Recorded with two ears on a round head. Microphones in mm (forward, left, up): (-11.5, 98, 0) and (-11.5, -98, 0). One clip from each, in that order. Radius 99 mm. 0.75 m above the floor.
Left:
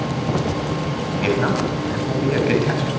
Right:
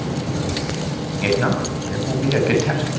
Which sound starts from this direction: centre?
A man speaking, at 1.2 s.